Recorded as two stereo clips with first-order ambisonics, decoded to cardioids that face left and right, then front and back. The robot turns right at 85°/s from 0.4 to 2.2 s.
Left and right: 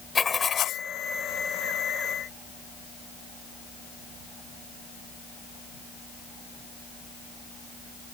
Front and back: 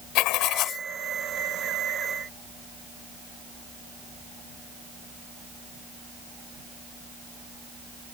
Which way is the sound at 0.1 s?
20° left.